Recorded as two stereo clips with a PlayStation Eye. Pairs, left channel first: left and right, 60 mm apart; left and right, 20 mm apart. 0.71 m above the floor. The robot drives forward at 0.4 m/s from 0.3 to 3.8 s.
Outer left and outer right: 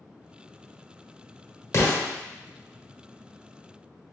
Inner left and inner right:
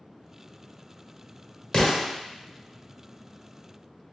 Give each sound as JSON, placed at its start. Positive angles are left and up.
{"t": 1.7, "sound": "an explosion", "side_deg": 45, "distance_m": 1.0}